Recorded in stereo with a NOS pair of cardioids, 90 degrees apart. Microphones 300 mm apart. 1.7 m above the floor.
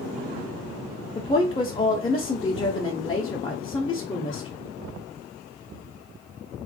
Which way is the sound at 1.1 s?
15° left.